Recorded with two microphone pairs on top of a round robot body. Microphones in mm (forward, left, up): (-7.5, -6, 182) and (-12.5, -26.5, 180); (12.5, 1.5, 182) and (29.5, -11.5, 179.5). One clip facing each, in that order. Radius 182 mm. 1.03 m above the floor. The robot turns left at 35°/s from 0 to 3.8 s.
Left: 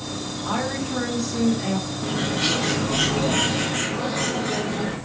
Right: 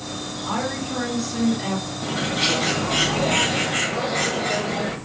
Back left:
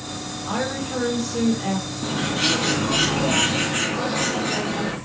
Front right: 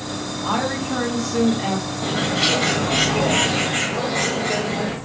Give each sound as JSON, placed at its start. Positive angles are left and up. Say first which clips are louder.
{"t": 0.5, "sound": "a woman speaking", "louder": "even, front right 3 dB", "azimuth_deg": 10, "distance_m": 2.5}
{"t": 2.0, "sound": "a bird", "louder": "right 2 dB, front right 2 dB", "azimuth_deg": -35, "distance_m": 1.5}